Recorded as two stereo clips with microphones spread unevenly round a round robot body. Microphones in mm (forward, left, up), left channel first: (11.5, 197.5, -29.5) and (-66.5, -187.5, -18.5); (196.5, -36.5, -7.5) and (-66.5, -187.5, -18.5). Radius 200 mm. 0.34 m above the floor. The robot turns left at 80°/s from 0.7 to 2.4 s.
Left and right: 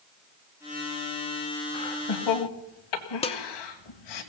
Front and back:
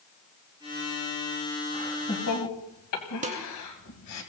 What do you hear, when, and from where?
1.7 s laughter: 120° left, 2 m; by 4.2 s 70° left, 2 m
3.2 s dishes clattering: 150° left, 0.7 m